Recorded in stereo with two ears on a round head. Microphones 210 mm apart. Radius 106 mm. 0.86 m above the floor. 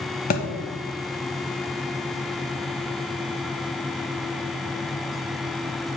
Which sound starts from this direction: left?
A thud, at 0.3 s.